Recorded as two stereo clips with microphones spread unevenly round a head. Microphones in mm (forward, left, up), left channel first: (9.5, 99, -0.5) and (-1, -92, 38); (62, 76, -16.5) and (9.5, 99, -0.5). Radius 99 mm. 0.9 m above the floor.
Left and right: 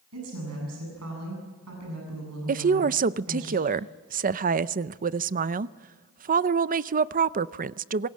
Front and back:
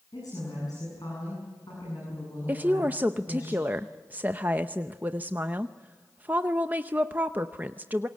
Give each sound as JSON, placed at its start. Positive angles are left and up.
{"t": 0.1, "sound": "a woman speaking", "azimuth_deg": -85, "distance_m": 8.0}
{"t": 2.5, "sound": "a woman speaking", "azimuth_deg": -130, "distance_m": 0.5}